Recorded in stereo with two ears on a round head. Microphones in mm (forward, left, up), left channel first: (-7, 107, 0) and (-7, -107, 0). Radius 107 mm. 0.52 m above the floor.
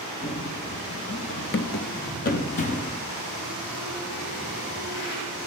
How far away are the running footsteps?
About 0.9 m.